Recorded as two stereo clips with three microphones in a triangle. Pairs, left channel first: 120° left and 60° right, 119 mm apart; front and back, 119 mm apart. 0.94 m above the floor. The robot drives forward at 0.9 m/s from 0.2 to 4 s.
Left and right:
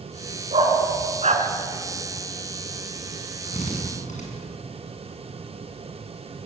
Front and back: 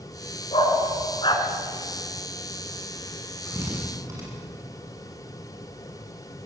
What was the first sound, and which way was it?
A dog barking, 35° right.